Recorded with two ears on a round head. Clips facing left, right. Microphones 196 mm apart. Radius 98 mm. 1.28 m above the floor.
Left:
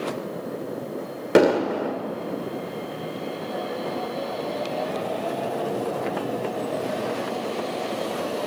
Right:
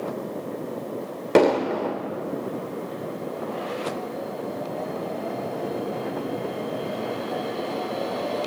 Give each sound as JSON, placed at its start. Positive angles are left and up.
{"t": 1.4, "sound": "an explosion", "side_deg": 10, "distance_m": 1.8}